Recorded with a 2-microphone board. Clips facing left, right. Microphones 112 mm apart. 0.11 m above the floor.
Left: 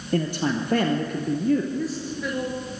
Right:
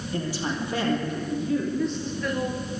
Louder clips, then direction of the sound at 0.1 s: Left 6 dB; 55° left (ahead or behind).